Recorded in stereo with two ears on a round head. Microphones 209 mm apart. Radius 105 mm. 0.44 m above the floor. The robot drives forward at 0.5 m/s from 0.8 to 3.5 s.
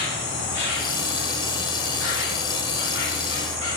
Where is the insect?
70° left (ahead or behind), 1.2 m; by 3.8 s 50° left (ahead or behind), 1.5 m.